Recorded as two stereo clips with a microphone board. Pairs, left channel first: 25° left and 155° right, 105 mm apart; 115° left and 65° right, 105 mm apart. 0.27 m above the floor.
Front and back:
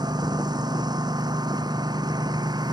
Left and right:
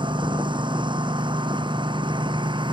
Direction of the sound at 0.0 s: 110° right.